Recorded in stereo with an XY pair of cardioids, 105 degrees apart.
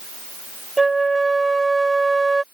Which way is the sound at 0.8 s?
15° right.